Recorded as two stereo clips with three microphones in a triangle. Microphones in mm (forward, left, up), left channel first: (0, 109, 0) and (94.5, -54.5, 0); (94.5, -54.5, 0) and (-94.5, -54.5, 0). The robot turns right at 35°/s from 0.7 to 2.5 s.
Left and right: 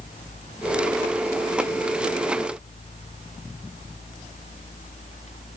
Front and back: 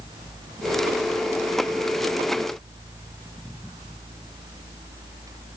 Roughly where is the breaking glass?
I don't hear breaking glass.